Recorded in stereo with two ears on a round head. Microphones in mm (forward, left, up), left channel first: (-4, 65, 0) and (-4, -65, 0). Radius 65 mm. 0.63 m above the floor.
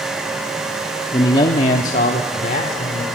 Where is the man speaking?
20° left (ahead or behind), 1.2 m; by 3.0 s 60° left (ahead or behind), 2.5 m.